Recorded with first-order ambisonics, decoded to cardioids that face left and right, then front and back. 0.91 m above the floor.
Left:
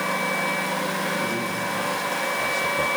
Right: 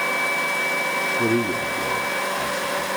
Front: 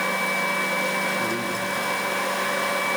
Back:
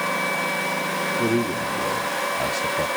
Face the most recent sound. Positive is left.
turn(degrees=150)